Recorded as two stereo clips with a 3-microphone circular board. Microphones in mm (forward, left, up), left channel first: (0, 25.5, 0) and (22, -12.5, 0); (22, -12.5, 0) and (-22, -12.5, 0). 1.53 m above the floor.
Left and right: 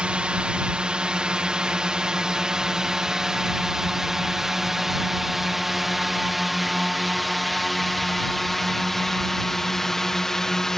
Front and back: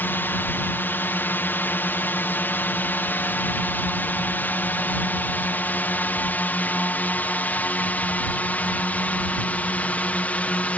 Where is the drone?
Straight ahead; by 10.8 s 45° left.